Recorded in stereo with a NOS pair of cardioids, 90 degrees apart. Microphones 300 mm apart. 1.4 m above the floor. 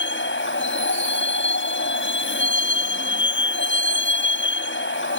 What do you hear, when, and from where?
0.0 s a vehicle: 40° left